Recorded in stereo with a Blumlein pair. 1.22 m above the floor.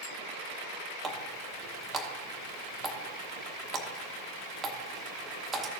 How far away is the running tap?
About 1.1 m.